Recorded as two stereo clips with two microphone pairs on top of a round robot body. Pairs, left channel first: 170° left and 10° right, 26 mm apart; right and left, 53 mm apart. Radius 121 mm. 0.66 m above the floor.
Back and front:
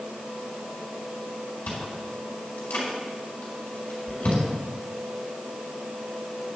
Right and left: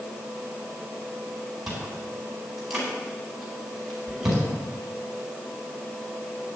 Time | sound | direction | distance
1.7 | chewing | straight behind | 4.5 m